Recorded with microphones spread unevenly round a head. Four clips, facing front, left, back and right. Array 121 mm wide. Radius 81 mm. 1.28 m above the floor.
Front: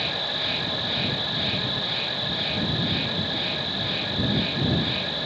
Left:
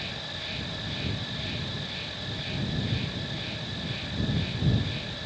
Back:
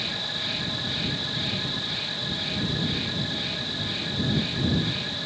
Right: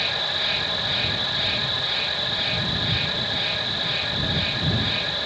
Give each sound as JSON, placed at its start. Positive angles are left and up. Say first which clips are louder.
{"t": 0.0, "sound": "an insect", "louder": "right 10 dB, front 4 dB", "azimuth_deg": -35}